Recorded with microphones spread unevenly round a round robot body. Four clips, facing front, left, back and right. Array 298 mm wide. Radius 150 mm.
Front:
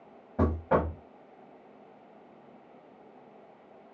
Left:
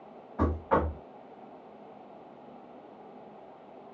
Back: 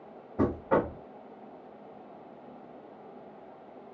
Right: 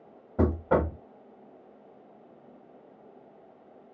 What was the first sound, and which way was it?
Knocking, 80° right.